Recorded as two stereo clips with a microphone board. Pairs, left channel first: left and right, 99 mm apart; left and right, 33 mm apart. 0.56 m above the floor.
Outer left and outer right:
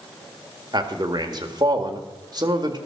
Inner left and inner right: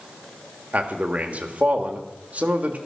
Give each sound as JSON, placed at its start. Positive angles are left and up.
{"t": 0.7, "sound": "a man speaking", "side_deg": -40, "distance_m": 1.8}